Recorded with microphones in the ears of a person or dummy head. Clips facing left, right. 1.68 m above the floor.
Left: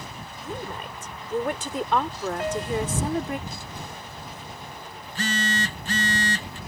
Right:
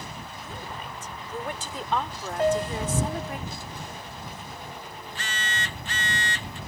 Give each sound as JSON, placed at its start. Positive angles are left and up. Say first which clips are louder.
{"t": 0.4, "sound": "a woman speaking", "louder": "left 7 dB", "side_deg": 50}
{"t": 2.4, "sound": "a piano", "louder": "right 5 dB", "side_deg": -30}
{"t": 5.0, "sound": "a phone buzzing", "louder": "left 11 dB", "side_deg": 35}